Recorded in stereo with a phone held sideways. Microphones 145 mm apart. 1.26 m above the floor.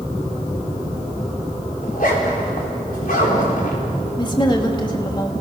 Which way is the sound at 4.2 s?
30° left (ahead or behind).